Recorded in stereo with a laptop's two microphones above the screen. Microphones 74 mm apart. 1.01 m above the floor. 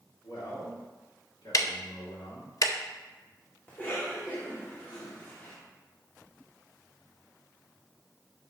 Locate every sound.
0.2 s a man speaking: 65° left (ahead or behind), 3 m; by 2.5 s 70° left (ahead or behind), 1.9 m
1.5 s ticking: 50° left (ahead or behind), 0.6 m
3.7 s a cough: 25° left (ahead or behind), 1.9 m